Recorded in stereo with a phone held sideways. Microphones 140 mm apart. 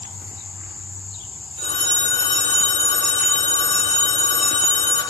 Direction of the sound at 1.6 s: 80° left.